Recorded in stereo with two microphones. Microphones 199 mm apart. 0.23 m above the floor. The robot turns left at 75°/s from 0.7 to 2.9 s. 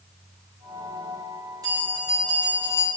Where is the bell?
160° right, 3 m; by 2.9 s 105° left, 3 m.